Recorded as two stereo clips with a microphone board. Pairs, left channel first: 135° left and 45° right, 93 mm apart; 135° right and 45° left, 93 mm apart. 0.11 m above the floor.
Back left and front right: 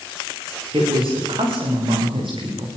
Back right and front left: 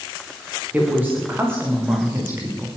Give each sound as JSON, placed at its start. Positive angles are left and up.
{"t": 0.7, "sound": "a woman speaking", "azimuth_deg": -25, "distance_m": 9.5}